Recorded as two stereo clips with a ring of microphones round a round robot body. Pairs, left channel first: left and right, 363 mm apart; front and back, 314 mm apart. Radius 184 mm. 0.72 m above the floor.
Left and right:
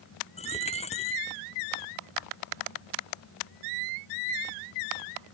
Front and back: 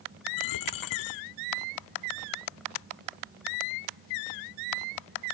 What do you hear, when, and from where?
0.4 s a dropped coin: 15° left